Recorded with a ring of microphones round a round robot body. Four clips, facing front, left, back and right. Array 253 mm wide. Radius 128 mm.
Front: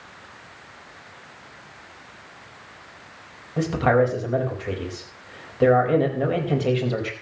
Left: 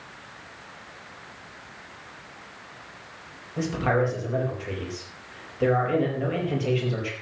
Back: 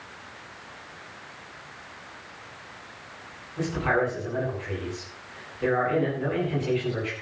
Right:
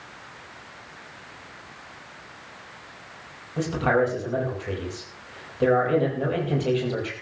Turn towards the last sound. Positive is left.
turn(degrees=-10)